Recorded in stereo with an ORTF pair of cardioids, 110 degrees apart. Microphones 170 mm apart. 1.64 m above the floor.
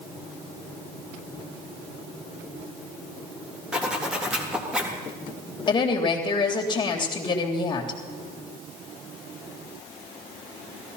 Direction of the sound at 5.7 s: 30° left.